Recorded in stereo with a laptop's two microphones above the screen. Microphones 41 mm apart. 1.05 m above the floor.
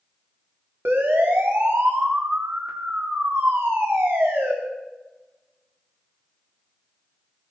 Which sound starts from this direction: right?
A siren, at 0.8 s.